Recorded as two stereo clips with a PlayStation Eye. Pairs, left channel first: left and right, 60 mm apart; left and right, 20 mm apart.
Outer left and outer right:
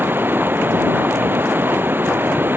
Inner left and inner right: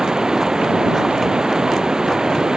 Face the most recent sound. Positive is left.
turn(degrees=-35)  # may be behind; listen again after turning